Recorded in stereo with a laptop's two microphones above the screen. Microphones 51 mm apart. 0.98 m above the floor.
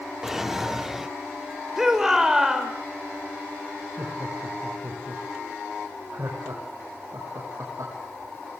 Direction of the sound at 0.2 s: 5° right (ahead or behind).